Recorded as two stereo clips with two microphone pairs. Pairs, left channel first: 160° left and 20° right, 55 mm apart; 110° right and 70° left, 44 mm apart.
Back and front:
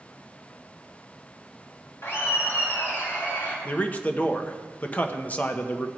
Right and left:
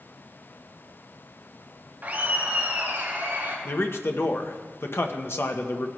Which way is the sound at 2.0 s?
120° left.